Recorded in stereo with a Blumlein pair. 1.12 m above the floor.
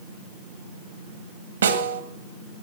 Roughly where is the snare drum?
Right.